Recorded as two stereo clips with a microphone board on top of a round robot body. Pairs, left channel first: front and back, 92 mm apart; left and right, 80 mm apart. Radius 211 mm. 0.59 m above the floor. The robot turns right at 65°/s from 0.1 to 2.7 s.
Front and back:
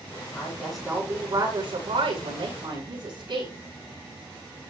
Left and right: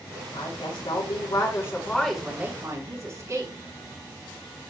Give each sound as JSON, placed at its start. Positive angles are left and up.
{"t": 0.3, "sound": "a woman speaking", "azimuth_deg": 60, "distance_m": 8.5}